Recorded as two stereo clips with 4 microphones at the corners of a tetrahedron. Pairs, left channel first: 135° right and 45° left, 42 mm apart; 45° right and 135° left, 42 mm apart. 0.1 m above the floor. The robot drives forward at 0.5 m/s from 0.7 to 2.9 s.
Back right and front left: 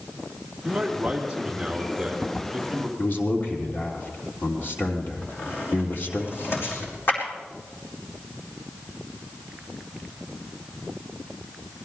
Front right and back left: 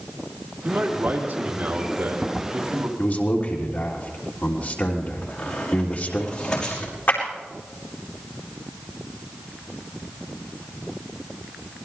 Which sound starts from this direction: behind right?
A squeak, at 5.2 s.